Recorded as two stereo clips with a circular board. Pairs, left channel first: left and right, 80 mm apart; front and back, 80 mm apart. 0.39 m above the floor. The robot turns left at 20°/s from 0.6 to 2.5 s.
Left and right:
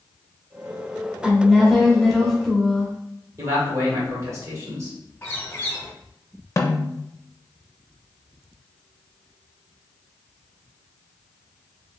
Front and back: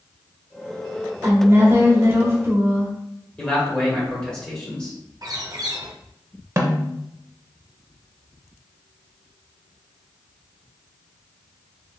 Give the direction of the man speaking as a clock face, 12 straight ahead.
2 o'clock.